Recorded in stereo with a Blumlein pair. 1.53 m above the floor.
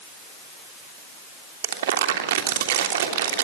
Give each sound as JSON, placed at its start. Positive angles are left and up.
{"t": 1.6, "sound": "crumpling", "azimuth_deg": -60, "distance_m": 3.0}